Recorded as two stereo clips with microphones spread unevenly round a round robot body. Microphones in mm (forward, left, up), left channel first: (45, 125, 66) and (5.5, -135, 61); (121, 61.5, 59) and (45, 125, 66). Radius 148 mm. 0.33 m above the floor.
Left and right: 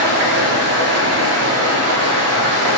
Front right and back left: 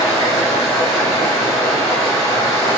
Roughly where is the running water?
Right.